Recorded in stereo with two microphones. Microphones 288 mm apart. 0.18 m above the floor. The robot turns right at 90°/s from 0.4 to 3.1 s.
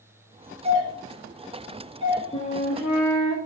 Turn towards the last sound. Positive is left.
turn(degrees=85)